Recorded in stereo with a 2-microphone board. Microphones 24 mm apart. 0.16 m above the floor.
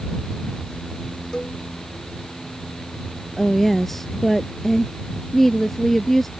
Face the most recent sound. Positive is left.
turn(degrees=10)  # may be behind; listen again after turning